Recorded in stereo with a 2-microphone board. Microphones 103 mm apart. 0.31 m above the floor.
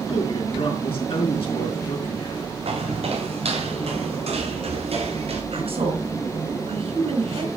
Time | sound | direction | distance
0.1 | a man speaking | 65° left (ahead or behind) | 5 m
2.6 | footsteps | 70° right (ahead or behind) | 4.5 m
5.5 | a woman speaking | 65° right (ahead or behind) | 4 m